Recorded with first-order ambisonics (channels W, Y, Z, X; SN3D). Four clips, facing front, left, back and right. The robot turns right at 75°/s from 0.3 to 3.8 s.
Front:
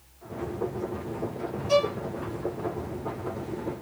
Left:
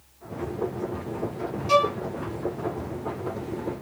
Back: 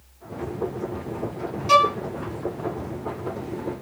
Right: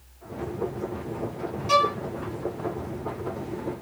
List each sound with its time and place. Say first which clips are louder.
1.7 s a violin: even, back 7 dB; 175° right, 0.8 m; by 1.9 s 155° right, 0.8 m